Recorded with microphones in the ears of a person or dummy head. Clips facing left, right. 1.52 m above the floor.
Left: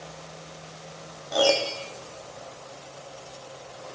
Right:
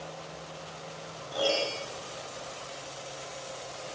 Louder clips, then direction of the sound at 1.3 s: Left 6 dB; 75° left (ahead or behind).